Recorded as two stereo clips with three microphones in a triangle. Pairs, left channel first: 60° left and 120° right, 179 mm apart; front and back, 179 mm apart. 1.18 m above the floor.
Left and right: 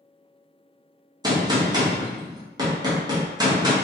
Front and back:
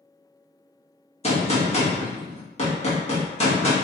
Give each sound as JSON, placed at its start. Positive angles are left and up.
{"t": 1.2, "sound": "a gunshot", "azimuth_deg": -50, "distance_m": 0.8}